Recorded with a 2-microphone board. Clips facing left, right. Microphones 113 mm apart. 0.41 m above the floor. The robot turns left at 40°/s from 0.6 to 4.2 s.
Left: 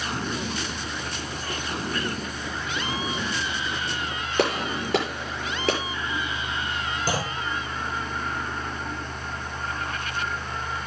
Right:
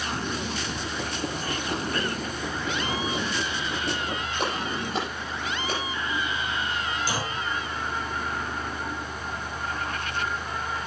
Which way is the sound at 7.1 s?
50° left (ahead or behind).